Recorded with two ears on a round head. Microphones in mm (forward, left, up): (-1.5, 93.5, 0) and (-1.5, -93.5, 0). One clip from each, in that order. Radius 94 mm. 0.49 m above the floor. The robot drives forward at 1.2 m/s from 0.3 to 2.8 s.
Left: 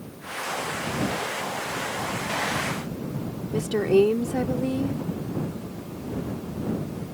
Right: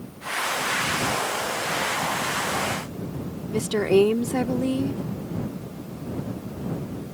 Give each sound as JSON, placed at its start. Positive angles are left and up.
{"t": 3.5, "sound": "a woman speaking", "side_deg": -25}